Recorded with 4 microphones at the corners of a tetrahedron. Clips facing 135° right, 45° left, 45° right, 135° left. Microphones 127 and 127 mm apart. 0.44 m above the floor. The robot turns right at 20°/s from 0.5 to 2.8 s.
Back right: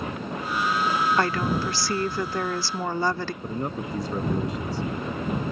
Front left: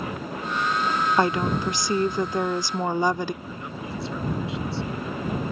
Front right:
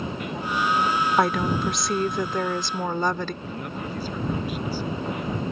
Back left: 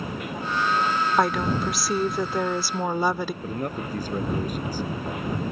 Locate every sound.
1.2 s a woman speaking: 45° left; by 3.3 s 75° left
3.4 s a man speaking: straight behind